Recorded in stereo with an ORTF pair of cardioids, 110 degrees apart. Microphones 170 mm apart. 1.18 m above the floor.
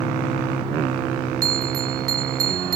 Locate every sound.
1.4 s a bell: 65° right